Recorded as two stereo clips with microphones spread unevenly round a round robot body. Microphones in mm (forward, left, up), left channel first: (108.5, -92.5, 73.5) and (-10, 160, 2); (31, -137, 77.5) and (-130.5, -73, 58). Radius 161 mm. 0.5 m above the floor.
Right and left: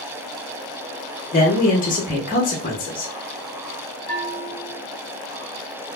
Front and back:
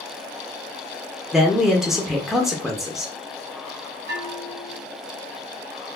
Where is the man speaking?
125° right, 0.8 m.